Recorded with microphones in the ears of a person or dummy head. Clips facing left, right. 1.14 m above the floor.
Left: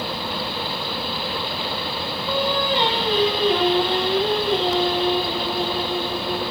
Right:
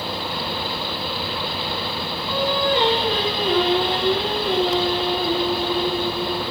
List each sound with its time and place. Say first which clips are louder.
2.3 s singing: right 1 dB; 45° right (ahead or behind), 1.9 m